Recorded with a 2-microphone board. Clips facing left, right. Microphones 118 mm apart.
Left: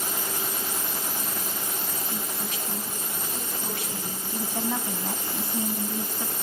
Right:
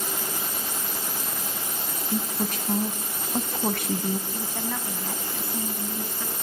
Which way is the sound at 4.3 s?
20° left (ahead or behind).